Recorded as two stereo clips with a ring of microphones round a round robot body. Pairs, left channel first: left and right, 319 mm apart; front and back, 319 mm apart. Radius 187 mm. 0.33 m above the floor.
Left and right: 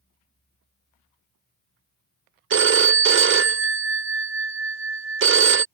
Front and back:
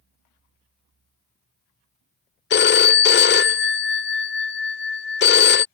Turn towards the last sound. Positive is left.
turn(degrees=-50)